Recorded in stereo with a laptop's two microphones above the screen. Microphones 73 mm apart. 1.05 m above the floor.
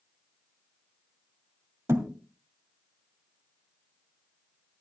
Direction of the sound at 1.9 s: 40° right (ahead or behind).